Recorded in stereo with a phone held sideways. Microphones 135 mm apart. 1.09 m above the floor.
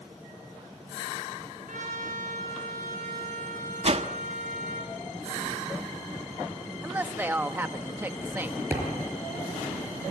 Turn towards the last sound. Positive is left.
turn(degrees=-15)  # may be behind; listen again after turning